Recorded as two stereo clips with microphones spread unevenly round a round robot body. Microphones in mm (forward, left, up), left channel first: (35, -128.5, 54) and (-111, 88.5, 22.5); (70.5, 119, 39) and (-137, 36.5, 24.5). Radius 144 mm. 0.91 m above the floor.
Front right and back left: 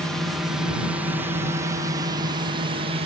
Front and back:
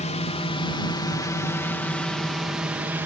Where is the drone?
45° left; by 3.1 s 135° left.